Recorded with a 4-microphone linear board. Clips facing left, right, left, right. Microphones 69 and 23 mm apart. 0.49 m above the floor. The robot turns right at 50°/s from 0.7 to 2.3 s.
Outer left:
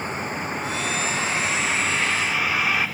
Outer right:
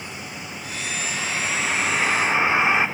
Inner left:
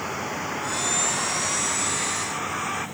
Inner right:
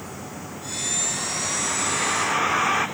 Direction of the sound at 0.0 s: 40° left (ahead or behind).